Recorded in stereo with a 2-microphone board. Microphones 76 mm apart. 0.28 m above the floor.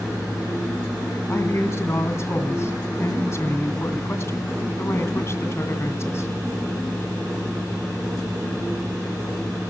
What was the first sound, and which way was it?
A man speaking, 40° left (ahead or behind).